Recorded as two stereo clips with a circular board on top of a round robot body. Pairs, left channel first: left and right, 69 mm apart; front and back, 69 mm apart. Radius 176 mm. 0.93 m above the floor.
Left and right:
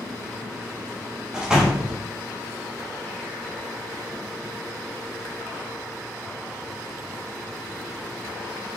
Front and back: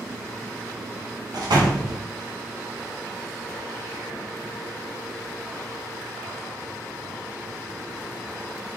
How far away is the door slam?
About 1.0 m.